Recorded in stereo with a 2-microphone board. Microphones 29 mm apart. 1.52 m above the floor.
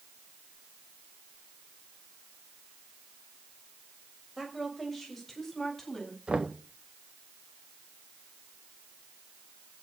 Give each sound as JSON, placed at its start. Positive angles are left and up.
{"t": 4.4, "sound": "a woman speaking", "side_deg": 0, "distance_m": 6.0}
{"t": 6.3, "sound": "knocking", "side_deg": -35, "distance_m": 1.3}